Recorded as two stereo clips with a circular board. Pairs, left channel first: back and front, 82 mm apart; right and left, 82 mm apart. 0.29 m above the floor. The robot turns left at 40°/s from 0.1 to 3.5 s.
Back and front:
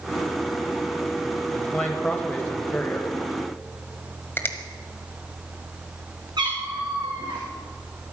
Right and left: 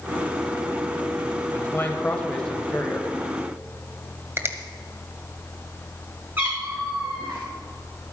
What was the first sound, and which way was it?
A man speaking, 115° right.